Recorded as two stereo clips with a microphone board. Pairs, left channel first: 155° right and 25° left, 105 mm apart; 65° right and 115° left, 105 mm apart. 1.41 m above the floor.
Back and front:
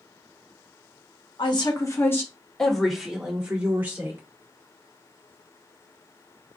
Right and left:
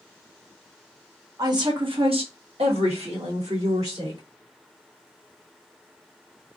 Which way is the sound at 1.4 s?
165° left.